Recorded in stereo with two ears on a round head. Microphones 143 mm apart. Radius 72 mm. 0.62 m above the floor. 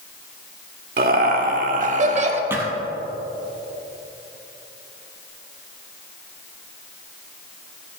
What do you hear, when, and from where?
1.0 s laughter: 60° right (ahead or behind), 2.0 m; by 2.4 s 40° right (ahead or behind), 1.4 m
2.5 s a thud: 15° right (ahead or behind), 2 m